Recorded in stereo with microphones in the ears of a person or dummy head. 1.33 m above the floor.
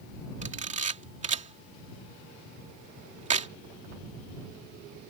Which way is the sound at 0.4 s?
40° right (ahead or behind).